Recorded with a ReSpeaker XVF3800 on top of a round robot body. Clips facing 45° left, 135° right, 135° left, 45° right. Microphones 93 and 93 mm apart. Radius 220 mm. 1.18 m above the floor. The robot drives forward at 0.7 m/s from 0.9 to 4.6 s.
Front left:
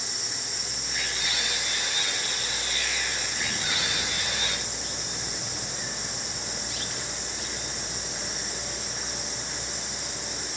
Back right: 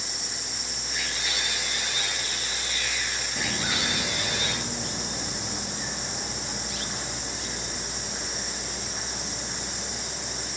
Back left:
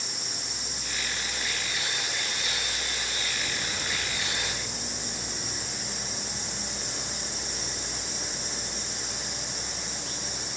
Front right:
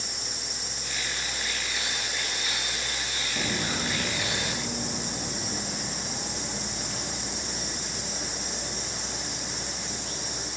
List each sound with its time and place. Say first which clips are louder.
3.4 s footsteps: back right 5 dB, front right 4 dB; 60° right, 1.8 m